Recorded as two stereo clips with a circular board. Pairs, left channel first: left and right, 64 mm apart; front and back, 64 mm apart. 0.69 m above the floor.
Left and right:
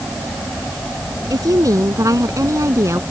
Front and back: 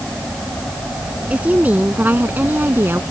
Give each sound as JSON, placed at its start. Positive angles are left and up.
{"t": 1.3, "sound": "a woman speaking", "azimuth_deg": -115}